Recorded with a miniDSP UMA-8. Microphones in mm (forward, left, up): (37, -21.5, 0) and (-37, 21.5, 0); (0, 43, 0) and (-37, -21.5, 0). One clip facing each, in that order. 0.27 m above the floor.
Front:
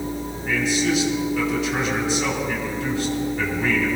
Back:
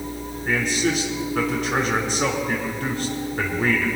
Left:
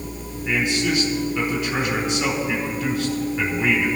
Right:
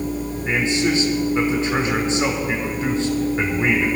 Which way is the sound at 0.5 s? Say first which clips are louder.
Front 1 dB, right 1 dB; 175° right.